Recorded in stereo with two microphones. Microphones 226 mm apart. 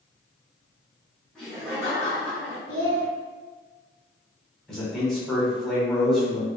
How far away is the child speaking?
About 1.0 m.